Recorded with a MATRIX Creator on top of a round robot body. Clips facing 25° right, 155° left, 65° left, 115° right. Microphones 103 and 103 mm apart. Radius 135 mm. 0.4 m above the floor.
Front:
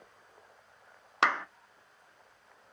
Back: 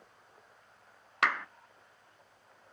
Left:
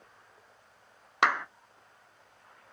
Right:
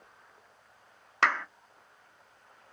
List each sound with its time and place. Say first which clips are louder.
1.2 s a clap: front 3 dB, left 1 dB; 5° left, 0.6 m